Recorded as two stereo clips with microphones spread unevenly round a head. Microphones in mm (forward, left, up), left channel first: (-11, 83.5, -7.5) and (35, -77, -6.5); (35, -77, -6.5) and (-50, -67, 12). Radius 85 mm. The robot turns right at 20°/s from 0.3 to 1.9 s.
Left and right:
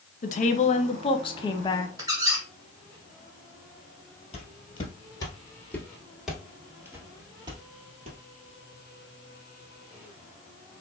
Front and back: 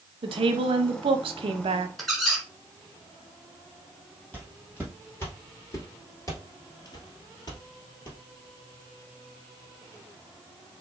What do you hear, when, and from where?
0.2 s a woman speaking: 145° left, 0.6 m; by 1.9 s 175° left, 0.6 m
2.0 s a squeak: 115° right, 1.4 m
4.3 s footsteps: 80° left, 1.6 m; by 8.2 s 40° right, 1.8 m